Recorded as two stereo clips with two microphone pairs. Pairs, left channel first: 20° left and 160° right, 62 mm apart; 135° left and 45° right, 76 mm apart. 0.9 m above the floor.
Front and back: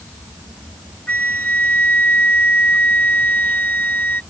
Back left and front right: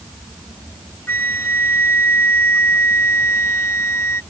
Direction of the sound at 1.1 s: 80° left.